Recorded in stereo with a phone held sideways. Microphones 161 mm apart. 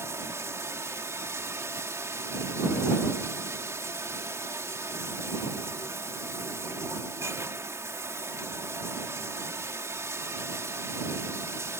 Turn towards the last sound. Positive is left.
turn(degrees=-20)  # may be behind; listen again after turning